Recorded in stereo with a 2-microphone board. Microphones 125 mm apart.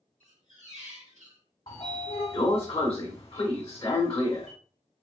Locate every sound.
0.2 s a squeak: 70° right (ahead or behind), 2 m
1.7 s a sliding door: 50° left (ahead or behind), 1.2 m